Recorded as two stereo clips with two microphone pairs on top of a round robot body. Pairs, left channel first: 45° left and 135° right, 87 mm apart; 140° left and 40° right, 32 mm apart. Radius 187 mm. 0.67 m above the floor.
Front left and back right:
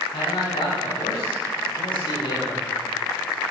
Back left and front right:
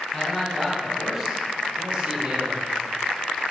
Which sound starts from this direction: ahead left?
A man speaking, at 0.1 s.